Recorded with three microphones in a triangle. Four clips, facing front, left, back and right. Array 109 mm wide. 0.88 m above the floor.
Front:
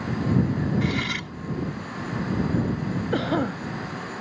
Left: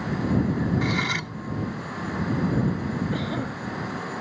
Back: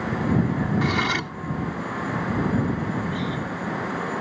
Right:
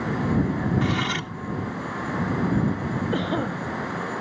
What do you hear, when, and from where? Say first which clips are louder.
0.8 s cutlery clinking: right 1 dB, back 4 dB; 165° right
3.1 s a cough: right 4 dB, front 4 dB; 20° right